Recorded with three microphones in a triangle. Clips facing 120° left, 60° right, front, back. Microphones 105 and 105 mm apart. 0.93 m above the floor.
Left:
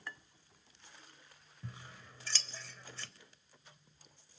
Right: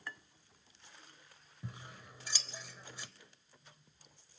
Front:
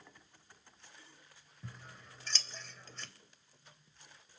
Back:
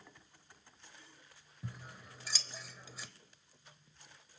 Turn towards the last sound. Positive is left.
turn(degrees=-115)